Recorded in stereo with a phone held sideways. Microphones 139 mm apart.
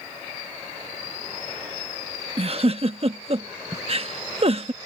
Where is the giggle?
45° right (ahead or behind).